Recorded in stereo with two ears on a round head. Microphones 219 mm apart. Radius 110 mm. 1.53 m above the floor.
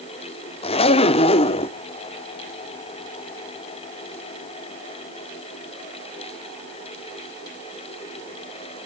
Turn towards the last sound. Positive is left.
turn(degrees=25)  # may be behind; listen again after turning